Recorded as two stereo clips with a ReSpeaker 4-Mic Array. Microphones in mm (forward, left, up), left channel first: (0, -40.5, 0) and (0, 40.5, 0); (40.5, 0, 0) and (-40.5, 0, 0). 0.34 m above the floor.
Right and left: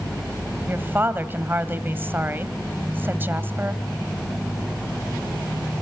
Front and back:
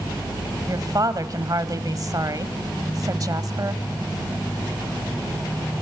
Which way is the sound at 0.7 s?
150° left.